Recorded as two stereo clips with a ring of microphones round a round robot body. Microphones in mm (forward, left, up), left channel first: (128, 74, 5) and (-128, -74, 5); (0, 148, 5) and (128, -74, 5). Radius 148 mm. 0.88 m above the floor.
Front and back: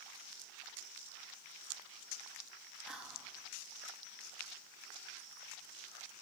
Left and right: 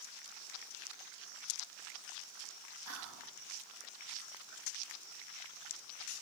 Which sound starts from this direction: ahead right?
Whispering, at 2.9 s.